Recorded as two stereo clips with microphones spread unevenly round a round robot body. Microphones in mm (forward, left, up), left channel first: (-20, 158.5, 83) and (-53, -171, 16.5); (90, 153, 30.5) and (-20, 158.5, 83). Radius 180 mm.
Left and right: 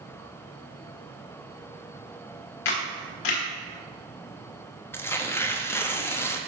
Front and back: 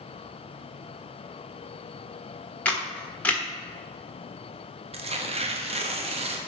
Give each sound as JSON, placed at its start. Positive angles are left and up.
{"t": 2.6, "sound": "a camera shutter", "azimuth_deg": 70, "distance_m": 1.7}
{"t": 4.9, "sound": "tearing paper", "azimuth_deg": -175, "distance_m": 0.9}